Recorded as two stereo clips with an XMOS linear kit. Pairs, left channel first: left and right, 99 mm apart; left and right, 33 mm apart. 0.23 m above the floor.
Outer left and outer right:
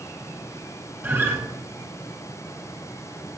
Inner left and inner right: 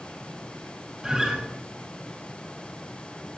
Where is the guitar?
25° right (ahead or behind), 1.9 m.